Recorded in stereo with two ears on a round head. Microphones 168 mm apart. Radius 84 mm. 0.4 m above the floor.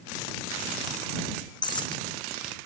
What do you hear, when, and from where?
1.6 s breaking glass: 25° left (ahead or behind)